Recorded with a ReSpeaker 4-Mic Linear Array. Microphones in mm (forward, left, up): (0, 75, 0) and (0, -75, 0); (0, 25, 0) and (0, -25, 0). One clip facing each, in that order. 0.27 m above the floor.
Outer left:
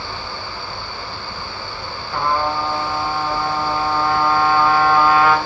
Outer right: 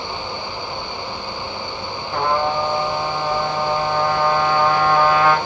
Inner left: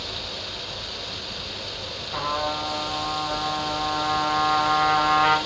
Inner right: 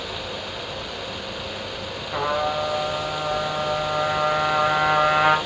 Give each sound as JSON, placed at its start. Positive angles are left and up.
{"t": 2.1, "sound": "a trumpet", "side_deg": -35, "distance_m": 4.5}